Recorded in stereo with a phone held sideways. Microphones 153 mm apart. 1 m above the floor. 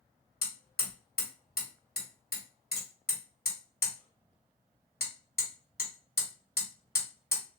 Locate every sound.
0.4 s hammering: 80° left, 1.8 m